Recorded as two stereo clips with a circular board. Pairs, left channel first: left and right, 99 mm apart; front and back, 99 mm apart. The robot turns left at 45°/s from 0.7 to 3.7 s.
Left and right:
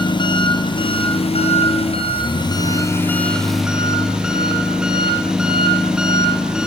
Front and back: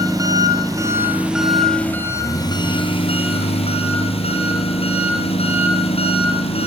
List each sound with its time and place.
0.0 s an engine running: 130° left, 4 m; by 6.7 s 5° right, 4 m